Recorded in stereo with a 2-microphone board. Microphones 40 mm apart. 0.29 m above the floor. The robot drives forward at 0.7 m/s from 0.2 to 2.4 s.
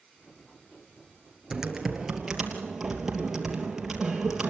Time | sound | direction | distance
1.5 | typing on a keyboard | 10° right (ahead or behind) | 2 m